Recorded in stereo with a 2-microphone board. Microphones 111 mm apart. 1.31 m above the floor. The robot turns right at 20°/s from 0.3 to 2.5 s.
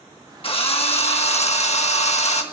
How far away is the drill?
About 1.4 m.